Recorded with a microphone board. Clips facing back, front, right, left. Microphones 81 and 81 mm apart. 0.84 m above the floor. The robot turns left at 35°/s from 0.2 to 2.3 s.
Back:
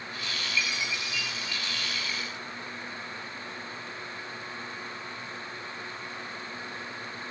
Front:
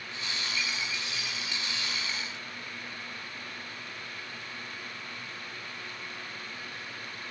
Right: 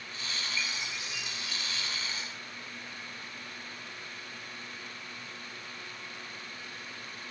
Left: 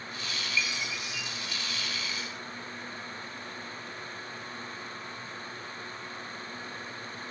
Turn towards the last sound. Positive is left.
turn(degrees=-100)